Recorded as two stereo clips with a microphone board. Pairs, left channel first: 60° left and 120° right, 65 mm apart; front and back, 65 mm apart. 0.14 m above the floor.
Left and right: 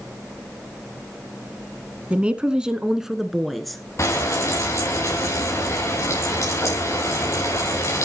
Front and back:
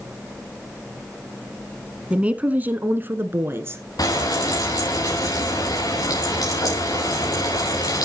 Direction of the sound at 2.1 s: 145° right.